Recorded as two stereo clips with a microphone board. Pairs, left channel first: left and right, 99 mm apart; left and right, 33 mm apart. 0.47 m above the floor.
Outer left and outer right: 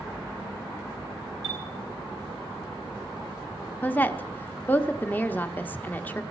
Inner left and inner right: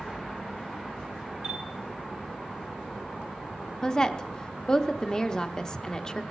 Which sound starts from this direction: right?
A chime, at 1.4 s.